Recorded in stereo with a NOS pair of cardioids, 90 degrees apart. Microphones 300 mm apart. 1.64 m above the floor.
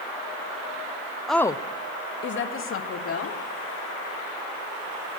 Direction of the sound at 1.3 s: Straight ahead.